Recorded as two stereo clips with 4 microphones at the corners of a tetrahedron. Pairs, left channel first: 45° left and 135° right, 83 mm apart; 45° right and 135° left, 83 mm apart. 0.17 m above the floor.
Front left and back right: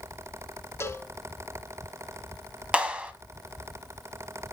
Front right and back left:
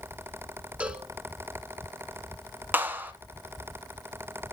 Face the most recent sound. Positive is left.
turn(degrees=165)